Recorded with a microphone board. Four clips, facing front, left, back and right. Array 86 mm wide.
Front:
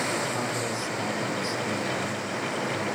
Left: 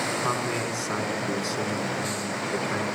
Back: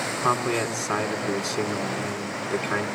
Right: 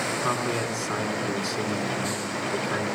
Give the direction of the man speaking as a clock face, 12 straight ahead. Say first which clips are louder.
Right 1 dB, back 5 dB; 6 o'clock.